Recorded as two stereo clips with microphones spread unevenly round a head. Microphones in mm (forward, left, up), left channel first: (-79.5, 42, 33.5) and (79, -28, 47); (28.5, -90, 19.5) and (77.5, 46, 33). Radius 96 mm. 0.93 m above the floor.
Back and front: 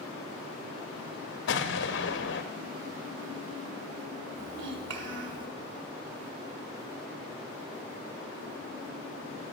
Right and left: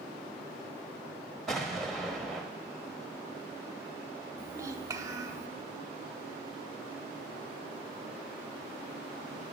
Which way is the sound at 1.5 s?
165° left.